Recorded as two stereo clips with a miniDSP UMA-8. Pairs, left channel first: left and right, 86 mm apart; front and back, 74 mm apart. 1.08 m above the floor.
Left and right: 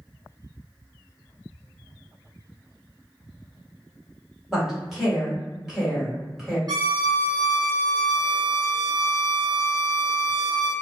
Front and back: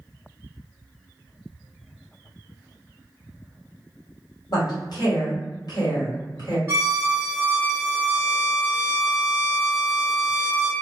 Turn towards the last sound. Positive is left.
turn(degrees=-130)